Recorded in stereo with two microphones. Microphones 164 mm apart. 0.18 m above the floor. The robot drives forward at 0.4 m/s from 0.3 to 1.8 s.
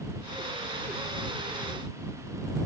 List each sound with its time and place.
Only background noise.